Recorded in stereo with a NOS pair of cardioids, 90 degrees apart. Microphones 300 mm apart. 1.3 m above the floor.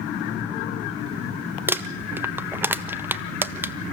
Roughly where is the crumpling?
Ahead.